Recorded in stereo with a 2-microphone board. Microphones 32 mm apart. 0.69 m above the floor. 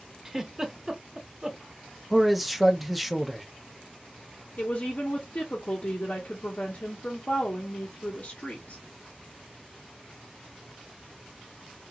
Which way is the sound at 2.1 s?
5° right (ahead or behind).